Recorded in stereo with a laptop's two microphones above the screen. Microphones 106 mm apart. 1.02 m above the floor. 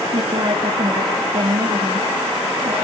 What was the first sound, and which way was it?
A woman speaking, 55° right (ahead or behind).